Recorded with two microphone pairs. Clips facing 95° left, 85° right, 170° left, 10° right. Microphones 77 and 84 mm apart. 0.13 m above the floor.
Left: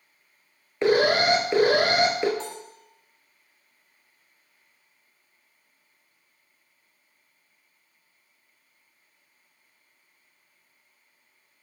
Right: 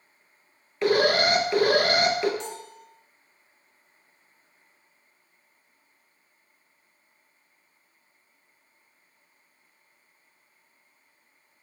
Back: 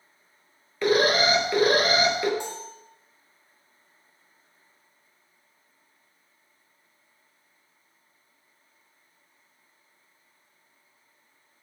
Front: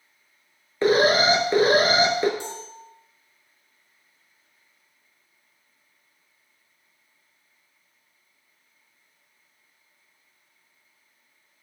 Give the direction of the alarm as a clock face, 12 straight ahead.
11 o'clock.